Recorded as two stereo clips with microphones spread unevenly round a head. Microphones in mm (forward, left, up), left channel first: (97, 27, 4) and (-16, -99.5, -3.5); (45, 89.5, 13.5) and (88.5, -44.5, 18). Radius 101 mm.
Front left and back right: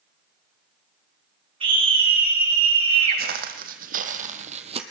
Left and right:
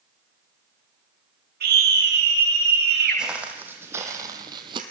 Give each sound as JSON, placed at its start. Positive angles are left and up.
{"t": 1.6, "sound": "a scream", "azimuth_deg": -75, "distance_m": 7.0}
{"t": 3.2, "sound": "footsteps", "azimuth_deg": -155, "distance_m": 2.0}